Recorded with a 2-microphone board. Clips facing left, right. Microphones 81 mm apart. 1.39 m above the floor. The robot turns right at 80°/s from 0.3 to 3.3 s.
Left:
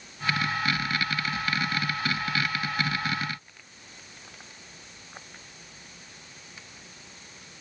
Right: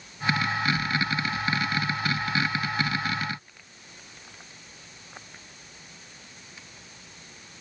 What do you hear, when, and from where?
Only background noise.